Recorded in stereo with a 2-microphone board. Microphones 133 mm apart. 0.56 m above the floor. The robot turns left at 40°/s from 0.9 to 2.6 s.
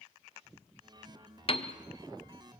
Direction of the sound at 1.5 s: 45° left (ahead or behind).